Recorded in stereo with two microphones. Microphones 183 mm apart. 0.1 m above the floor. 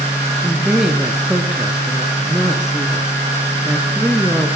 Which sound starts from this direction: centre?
A woman speaking, at 0.4 s.